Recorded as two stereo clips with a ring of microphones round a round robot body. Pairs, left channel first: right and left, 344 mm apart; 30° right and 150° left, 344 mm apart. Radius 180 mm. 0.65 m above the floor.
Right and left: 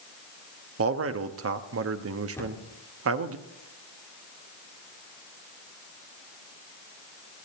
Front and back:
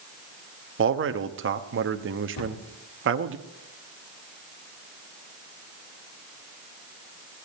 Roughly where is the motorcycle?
No motorcycle in this recording.